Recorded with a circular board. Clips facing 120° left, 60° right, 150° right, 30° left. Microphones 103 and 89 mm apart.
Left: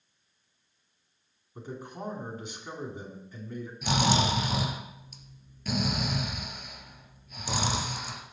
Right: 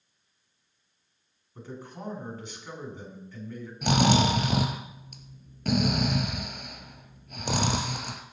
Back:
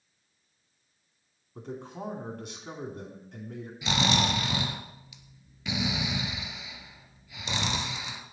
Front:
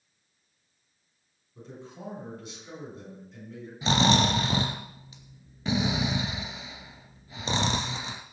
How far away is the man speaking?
About 2.5 m.